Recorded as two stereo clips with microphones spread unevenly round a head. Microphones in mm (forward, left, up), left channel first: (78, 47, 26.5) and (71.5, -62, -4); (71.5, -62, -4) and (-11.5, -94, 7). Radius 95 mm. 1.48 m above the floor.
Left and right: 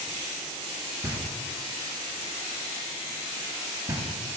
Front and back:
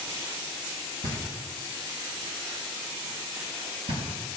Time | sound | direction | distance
1.0 | knocking | 140° right | 5.5 m